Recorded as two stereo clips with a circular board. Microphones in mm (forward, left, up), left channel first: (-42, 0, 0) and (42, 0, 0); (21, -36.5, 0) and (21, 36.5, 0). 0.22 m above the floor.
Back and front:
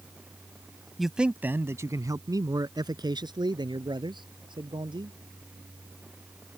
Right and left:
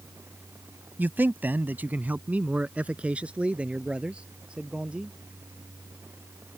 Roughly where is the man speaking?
Left.